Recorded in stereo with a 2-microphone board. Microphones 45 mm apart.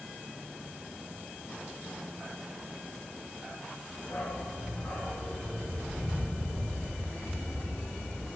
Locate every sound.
4.0 s a dog barking: 75° left (ahead or behind), 6 m